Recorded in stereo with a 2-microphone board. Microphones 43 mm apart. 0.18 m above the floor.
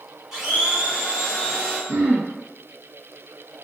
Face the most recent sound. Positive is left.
turn(degrees=-55)  # may be behind; listen again after turning